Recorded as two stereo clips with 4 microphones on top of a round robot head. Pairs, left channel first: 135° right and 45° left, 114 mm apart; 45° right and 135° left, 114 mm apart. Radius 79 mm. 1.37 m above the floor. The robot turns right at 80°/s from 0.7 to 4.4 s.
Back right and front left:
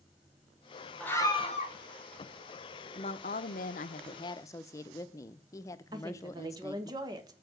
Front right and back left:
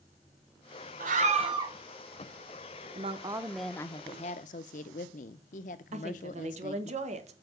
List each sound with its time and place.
1.0 s a scream: 145° left, 1.7 m; by 1.8 s 155° right, 1.7 m
3.0 s a woman speaking: 175° left, 0.7 m; by 6.9 s 70° right, 0.7 m
5.9 s a woman speaking: 105° left, 1.4 m